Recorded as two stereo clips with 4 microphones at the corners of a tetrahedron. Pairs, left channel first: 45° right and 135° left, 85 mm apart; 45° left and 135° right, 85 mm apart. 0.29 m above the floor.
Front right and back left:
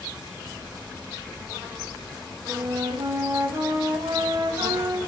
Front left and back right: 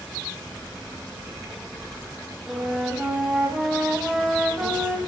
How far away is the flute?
About 1.6 m.